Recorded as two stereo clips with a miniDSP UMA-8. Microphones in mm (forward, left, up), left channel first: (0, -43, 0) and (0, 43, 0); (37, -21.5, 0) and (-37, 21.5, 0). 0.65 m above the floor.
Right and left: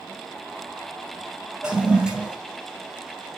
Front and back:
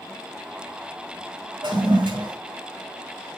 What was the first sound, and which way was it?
A toilet flushing, 170° left.